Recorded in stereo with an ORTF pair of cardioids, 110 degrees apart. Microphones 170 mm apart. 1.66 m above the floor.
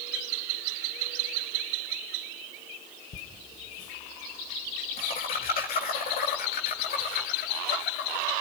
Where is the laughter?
40° left, 2 m; by 8.2 s 65° left, 4.5 m.